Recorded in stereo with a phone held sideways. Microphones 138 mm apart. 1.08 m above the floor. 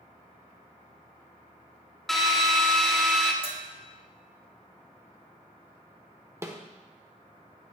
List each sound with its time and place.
2.1 s a drill: centre (ahead or behind), 1.1 m
3.4 s a bell: 40° left (ahead or behind), 1.3 m
6.4 s a snare drum: 20° right (ahead or behind), 1.0 m